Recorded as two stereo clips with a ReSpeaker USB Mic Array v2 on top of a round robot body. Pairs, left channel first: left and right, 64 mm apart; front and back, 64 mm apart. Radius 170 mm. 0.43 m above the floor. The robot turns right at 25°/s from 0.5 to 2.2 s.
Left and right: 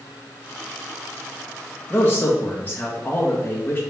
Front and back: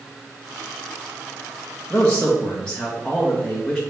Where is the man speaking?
60° left, 1.5 m; by 3.8 s 70° left, 1.5 m.